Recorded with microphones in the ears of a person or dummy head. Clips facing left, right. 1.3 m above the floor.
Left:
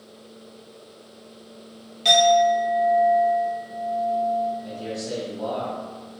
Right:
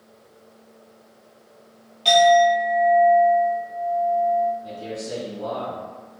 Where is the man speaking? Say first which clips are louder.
Left 1 dB; 70° left (ahead or behind), 1.2 m.